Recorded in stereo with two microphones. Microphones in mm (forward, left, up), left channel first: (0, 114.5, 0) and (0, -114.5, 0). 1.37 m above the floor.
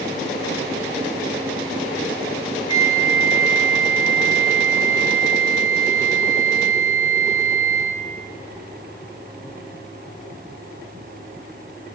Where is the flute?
70° right (ahead or behind), 2 m.